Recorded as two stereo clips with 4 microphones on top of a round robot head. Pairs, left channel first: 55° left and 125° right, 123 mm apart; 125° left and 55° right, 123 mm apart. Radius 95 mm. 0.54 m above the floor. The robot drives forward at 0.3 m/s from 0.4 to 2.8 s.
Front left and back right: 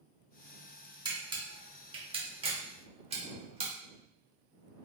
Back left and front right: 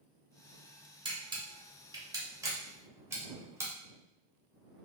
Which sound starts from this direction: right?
A camera shutter, at 1.1 s.